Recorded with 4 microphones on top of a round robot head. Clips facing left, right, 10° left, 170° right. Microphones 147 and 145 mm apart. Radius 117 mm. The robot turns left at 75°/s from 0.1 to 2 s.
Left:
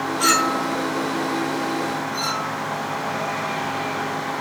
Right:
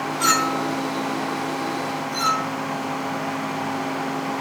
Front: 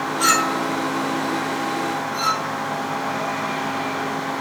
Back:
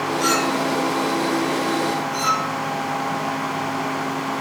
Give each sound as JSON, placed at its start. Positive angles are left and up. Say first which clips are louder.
{"t": 0.2, "sound": "a clink", "louder": "even, back 1 dB", "azimuth_deg": 20, "distance_m": 6.5}